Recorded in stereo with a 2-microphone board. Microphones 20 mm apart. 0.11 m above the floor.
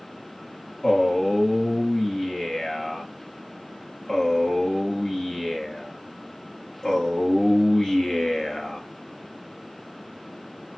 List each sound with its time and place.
0.8 s a man speaking: 30° left (ahead or behind), 1.4 m